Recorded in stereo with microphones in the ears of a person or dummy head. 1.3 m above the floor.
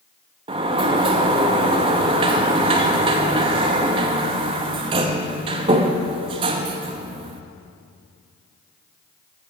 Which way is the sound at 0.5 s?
25° right (ahead or behind).